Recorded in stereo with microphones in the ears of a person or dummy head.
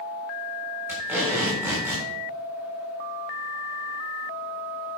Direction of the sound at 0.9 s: 5° right (ahead or behind).